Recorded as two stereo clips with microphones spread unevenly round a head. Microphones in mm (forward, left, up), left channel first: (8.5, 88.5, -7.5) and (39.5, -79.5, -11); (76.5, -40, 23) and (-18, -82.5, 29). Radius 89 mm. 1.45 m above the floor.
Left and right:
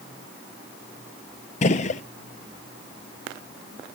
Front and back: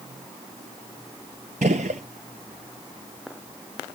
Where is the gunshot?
150° left, 0.7 m.